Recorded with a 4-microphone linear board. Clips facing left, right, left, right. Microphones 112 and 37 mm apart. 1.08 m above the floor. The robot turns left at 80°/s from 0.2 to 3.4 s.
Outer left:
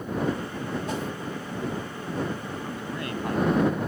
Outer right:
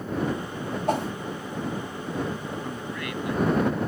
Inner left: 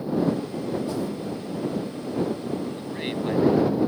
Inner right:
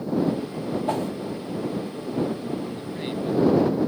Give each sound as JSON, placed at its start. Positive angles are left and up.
{"t": 0.9, "sound": "a whoosh", "side_deg": -55}
{"t": 2.6, "sound": "a man speaking", "azimuth_deg": -175}